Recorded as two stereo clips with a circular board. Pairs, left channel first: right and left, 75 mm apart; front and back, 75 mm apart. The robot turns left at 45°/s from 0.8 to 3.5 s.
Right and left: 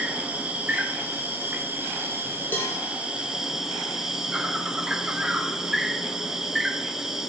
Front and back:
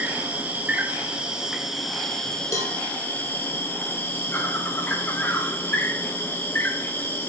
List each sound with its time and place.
0.0 s an insect: 140° left, 0.8 m; by 7.3 s 20° left, 0.8 m
2.5 s a cowbell: 30° right, 1.2 m; by 2.8 s 45° right, 1.2 m